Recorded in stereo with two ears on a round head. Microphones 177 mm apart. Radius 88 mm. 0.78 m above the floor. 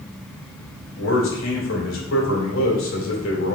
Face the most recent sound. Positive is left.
turn(degrees=75)  # may be behind; listen again after turning